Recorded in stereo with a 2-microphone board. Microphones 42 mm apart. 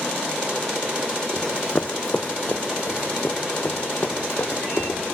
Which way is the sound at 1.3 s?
15° left (ahead or behind).